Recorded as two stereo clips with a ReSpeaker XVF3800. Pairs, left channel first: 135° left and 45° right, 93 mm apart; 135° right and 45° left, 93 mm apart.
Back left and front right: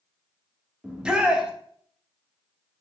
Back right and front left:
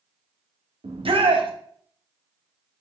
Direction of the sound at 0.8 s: 35° left.